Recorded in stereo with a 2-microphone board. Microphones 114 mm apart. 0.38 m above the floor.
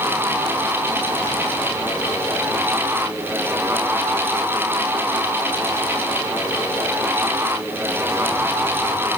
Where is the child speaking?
I don't hear a child speaking.